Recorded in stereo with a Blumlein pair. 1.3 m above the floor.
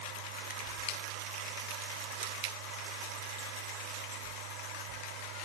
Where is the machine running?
45° right.